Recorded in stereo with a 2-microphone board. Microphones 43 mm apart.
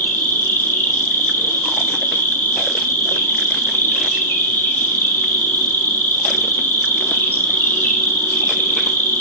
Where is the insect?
45° left (ahead or behind), 1.0 m.